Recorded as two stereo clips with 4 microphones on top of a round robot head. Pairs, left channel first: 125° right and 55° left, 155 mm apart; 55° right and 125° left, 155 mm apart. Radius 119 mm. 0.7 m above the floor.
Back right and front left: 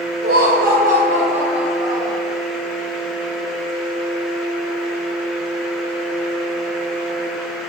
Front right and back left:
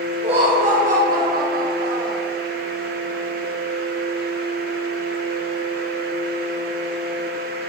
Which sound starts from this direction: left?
Laughter, at 0.2 s.